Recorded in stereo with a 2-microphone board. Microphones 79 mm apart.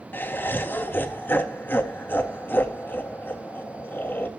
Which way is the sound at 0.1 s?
25° left (ahead or behind).